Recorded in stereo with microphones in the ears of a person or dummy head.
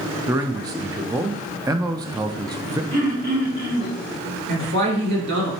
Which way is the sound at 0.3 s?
20° right (ahead or behind).